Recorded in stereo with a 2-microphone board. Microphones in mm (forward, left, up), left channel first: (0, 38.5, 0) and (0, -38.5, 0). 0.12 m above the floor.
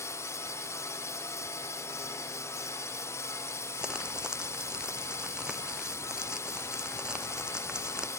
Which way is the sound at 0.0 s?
40° left (ahead or behind).